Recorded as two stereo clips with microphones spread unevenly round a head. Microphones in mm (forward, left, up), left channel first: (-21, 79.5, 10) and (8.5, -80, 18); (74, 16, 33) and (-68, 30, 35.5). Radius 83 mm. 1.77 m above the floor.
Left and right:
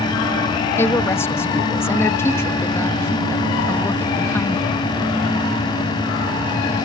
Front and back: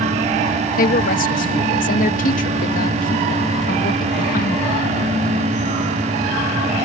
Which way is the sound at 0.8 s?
25° left.